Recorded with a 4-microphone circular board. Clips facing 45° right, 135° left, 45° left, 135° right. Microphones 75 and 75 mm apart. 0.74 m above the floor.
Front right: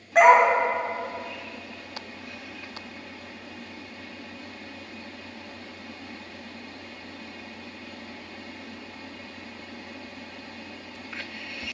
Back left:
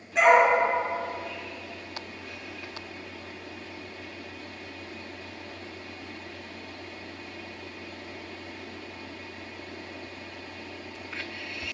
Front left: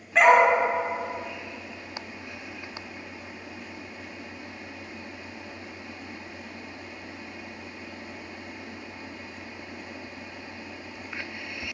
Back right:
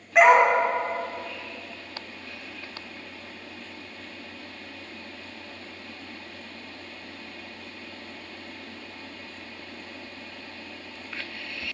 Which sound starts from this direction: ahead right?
A dog barking, at 0.1 s.